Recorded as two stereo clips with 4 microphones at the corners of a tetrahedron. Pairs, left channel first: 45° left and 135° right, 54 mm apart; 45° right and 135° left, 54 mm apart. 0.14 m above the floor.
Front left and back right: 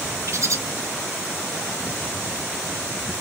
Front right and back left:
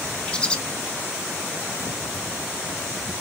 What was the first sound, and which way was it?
A bird, 115° right.